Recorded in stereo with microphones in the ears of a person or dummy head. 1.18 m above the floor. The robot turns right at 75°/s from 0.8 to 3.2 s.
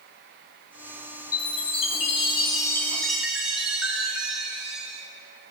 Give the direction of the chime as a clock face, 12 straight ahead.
11 o'clock.